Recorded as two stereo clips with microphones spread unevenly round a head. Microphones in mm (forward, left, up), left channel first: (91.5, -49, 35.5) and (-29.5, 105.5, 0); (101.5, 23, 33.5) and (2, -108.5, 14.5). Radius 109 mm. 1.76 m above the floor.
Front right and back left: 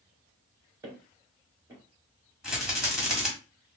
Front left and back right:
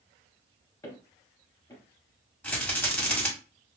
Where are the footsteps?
50° left, 1.9 m.